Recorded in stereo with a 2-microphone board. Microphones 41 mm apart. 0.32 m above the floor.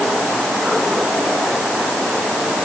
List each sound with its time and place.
Only background noise.